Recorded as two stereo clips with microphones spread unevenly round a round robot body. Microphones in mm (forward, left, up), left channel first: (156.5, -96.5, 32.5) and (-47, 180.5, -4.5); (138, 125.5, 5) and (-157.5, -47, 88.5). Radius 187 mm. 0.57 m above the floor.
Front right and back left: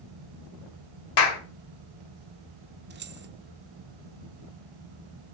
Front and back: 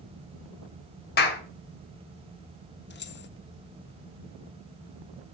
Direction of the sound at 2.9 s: 75° left.